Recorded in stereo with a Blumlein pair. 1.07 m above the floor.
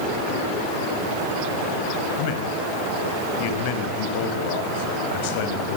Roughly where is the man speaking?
Ahead left.